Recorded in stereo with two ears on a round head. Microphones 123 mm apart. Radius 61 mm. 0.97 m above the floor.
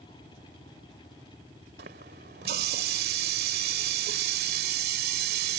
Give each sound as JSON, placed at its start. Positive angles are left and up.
{"t": 1.8, "sound": "a running tap", "side_deg": -80}